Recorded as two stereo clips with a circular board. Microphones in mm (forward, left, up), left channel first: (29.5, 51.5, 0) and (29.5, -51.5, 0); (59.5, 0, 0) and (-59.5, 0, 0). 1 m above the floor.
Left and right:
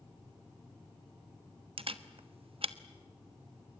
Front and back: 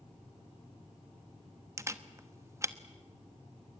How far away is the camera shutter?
About 1.1 m.